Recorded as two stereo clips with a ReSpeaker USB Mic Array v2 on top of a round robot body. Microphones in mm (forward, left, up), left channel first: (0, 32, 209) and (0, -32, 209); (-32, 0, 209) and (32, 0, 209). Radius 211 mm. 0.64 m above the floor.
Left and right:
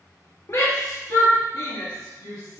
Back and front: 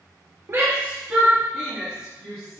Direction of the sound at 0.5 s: 50° left.